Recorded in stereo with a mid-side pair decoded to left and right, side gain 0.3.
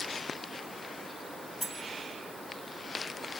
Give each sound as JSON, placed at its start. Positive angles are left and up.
{"t": 1.6, "sound": "cutlery clinking", "azimuth_deg": -5, "distance_m": 6.5}